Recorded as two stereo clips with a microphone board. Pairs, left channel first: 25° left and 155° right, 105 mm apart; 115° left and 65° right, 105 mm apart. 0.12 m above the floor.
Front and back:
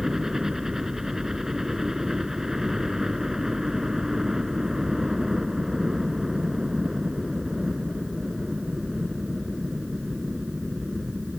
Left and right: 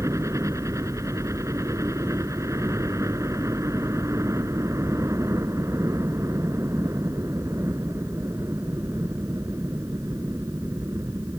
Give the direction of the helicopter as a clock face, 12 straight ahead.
3 o'clock.